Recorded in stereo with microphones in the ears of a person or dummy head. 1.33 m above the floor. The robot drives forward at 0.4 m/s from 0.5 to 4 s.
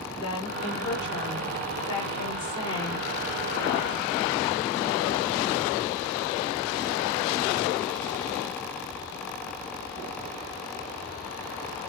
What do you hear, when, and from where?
0.2 s a woman speaking: 35° left (ahead or behind), 4.5 m; by 3.1 s 30° left (ahead or behind), 5.5 m